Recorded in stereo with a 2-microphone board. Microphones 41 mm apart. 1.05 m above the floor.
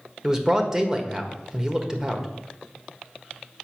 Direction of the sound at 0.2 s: 20° right (ahead or behind).